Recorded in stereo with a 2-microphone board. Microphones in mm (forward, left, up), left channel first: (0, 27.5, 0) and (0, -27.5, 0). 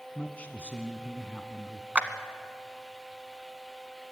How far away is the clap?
About 1.0 m.